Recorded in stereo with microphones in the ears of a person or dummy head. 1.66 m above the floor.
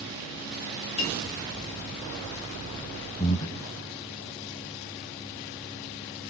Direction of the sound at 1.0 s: 35° left (ahead or behind).